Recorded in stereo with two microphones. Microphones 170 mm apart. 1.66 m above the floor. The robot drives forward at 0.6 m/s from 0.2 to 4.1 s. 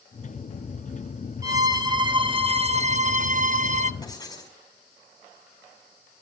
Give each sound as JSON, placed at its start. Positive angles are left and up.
{"t": 1.4, "sound": "a violin", "side_deg": -20, "distance_m": 1.3}
{"t": 4.0, "sound": "writing", "side_deg": 20, "distance_m": 5.5}